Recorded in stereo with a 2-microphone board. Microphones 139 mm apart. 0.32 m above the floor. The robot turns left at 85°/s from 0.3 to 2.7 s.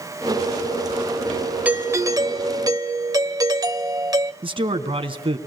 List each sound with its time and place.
1.6 s a doorbell: 10° right (ahead or behind), 1.4 m; by 4.3 s 25° right (ahead or behind), 1.4 m
4.4 s a man speaking: 40° right (ahead or behind), 3 m